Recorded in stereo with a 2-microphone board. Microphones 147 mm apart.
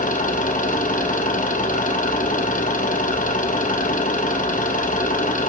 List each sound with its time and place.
0.0 s an engine running: 65° left (ahead or behind), 4.5 m